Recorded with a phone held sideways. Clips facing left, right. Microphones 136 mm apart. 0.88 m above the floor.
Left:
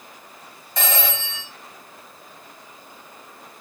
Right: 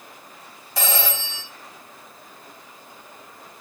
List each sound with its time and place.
0.8 s a phone ringing: 5° right (ahead or behind), 2.5 m